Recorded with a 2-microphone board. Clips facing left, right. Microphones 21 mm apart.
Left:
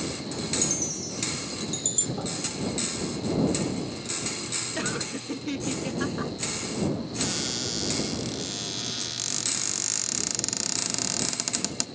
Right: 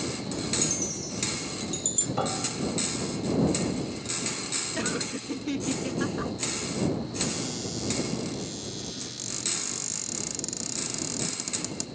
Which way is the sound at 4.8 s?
5° left (ahead or behind).